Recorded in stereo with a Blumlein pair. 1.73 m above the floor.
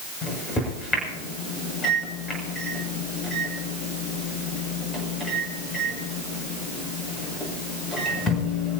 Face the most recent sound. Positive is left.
turn(degrees=20)